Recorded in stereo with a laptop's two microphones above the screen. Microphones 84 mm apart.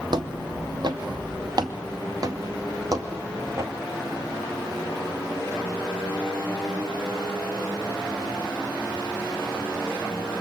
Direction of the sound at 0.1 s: 55° right (ahead or behind).